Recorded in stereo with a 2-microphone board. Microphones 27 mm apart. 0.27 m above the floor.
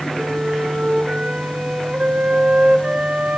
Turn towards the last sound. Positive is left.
turn(degrees=-55)  # may be behind; listen again after turning